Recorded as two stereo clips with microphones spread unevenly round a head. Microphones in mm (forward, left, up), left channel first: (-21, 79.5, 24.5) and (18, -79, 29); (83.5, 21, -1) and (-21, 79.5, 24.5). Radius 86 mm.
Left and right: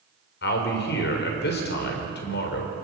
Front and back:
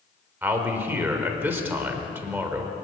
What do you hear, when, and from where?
0.4 s a man speaking: 75° left, 4 m